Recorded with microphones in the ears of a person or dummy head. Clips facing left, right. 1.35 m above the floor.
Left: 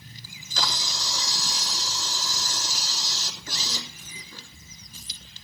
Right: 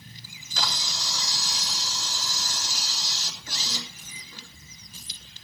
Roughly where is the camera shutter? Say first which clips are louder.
Left 2 dB; left.